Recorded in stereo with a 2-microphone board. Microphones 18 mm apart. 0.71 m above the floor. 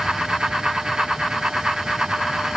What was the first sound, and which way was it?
Only background noise.